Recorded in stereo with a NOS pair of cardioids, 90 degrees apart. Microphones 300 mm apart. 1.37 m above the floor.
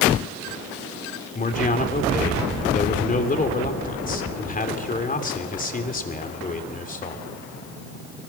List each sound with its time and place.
1.4 s a man speaking: 25° left, 3.5 m